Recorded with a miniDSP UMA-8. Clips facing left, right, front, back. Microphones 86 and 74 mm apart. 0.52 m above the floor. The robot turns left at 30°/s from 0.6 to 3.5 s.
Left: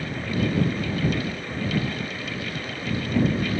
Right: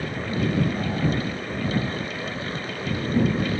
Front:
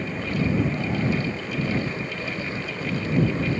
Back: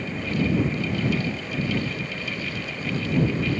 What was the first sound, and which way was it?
Only background noise.